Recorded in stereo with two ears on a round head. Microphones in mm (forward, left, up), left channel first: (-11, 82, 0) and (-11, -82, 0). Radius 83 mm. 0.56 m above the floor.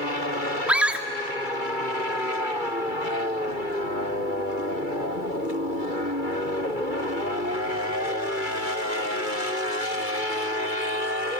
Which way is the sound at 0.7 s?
5° right (ahead or behind).